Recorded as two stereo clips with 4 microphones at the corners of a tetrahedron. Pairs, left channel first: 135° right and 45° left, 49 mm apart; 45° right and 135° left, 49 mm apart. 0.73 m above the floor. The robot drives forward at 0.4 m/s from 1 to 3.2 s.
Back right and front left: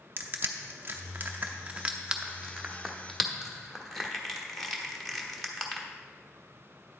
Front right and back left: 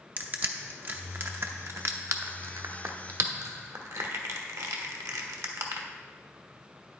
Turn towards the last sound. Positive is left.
turn(degrees=140)